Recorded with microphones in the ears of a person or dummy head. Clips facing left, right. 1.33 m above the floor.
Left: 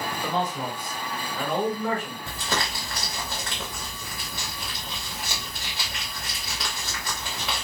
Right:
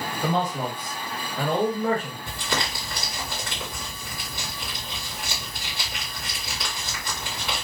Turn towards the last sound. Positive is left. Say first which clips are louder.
# left 1 dB
turn(degrees=35)  # may be behind; listen again after turning